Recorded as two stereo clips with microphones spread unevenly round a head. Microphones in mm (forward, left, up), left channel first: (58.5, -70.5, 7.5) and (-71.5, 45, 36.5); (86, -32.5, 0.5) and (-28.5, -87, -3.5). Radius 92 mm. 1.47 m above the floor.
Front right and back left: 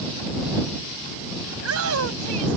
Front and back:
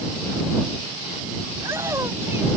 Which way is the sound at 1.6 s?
125° left.